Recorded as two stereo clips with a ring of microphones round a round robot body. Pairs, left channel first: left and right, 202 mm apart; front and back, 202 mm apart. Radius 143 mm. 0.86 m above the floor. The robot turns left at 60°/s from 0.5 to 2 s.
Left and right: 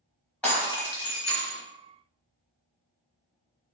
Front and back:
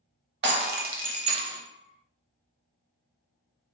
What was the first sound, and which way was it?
Breaking glass, 170° left.